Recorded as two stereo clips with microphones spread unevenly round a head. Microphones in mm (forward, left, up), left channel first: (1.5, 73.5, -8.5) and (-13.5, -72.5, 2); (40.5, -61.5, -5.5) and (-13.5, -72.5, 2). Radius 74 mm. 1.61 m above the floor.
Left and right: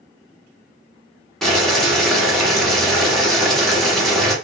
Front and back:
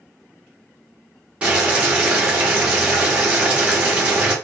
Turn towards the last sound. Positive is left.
turn(degrees=180)